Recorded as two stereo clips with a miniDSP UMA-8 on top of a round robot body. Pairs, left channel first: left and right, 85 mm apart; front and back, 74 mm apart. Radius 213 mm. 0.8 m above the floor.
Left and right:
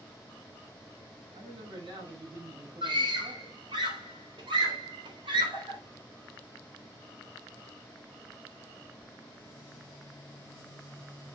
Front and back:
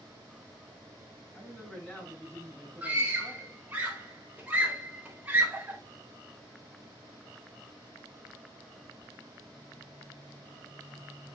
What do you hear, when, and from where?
1.3 s a man speaking: 75° right, 6.5 m; by 3.6 s 70° right, 7.5 m
2.8 s a scream: 110° right, 4 m